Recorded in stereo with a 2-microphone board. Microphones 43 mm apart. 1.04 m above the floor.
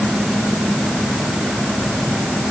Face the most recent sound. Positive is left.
No sound to turn to.